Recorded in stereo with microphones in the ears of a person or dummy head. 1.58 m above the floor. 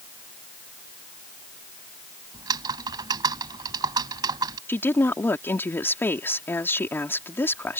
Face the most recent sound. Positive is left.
turn(degrees=15)  # may be behind; listen again after turning